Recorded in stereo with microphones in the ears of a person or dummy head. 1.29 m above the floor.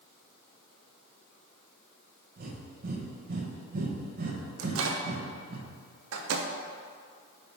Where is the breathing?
50° right (ahead or behind), 1.1 m.